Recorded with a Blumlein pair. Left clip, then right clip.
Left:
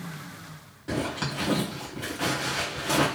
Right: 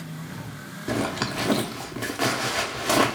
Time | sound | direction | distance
0.9 | a zipper | 65° right | 0.8 m